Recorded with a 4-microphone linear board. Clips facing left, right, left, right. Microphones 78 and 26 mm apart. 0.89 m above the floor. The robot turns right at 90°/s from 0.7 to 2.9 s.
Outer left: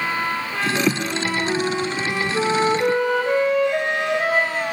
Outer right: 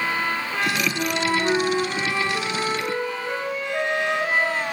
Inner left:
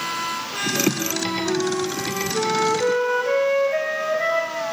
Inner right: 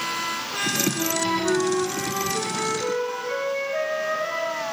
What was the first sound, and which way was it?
A flute, 95° right.